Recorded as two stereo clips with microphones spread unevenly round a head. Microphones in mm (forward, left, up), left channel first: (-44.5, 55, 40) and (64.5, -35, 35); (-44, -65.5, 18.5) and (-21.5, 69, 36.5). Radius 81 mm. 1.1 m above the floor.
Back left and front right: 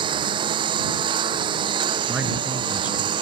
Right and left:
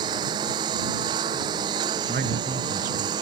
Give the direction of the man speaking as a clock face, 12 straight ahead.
11 o'clock.